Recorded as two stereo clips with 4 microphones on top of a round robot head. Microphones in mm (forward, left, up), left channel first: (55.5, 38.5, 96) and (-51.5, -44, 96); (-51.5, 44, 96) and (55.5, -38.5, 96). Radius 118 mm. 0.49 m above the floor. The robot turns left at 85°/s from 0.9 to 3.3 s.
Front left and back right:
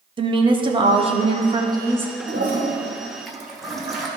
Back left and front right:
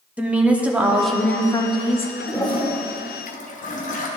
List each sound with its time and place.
0.2 s a woman speaking: 115° right, 1.0 m; by 2.1 s 140° left, 1.0 m
2.3 s a toilet flushing: 145° right, 1.2 m; by 4.1 s 125° left, 1.2 m